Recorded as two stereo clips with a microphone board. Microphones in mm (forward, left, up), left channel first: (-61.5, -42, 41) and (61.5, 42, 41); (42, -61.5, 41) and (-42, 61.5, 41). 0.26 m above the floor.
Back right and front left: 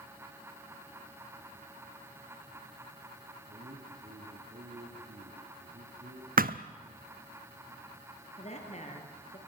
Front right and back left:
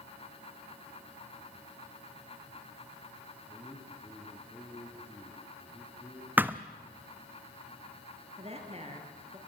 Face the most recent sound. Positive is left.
turn(degrees=170)